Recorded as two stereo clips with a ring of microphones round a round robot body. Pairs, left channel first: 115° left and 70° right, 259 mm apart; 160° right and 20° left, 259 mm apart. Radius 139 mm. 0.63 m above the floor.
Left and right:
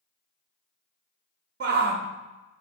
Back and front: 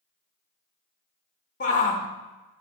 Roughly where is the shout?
Right.